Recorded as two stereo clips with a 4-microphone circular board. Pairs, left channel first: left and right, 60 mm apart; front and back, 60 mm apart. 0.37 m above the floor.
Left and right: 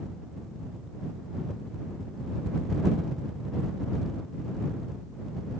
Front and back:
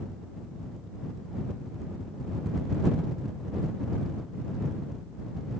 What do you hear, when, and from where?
Only background noise.